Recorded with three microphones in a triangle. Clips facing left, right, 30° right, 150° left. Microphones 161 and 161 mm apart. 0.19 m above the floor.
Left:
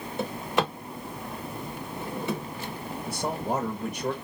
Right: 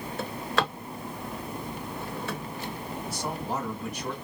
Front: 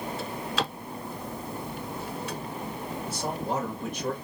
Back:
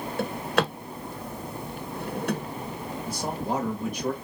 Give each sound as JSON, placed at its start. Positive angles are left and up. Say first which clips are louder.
{"t": 0.2, "sound": "a drawer", "louder": "left 2 dB, back 10 dB", "azimuth_deg": 160, "distance_m": 0.9}
{"t": 3.1, "sound": "a man speaking", "louder": "left 4 dB, back 2 dB", "azimuth_deg": 55, "distance_m": 2.0}